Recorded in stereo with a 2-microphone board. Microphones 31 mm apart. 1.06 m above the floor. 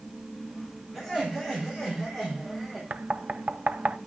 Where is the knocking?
80° right, 0.6 m.